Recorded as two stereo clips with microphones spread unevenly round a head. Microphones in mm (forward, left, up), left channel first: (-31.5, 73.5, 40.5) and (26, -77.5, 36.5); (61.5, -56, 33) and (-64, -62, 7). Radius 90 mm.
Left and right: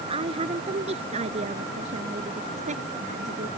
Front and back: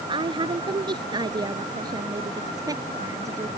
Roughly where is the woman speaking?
Behind right.